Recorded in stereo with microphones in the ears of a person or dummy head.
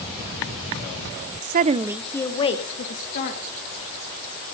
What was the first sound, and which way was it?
A woman speaking, 55° right (ahead or behind).